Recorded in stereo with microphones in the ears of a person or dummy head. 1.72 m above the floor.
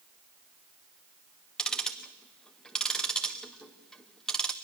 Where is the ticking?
Centre (ahead or behind), 1.0 m.